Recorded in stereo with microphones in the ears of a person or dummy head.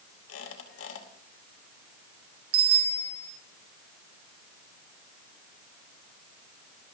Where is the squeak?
85° left, 2.5 m.